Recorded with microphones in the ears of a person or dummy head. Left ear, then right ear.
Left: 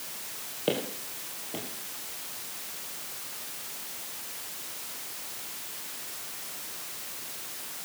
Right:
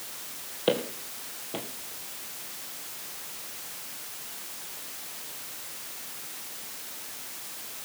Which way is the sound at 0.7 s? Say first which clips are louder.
Right 3 dB; 15° right (ahead or behind).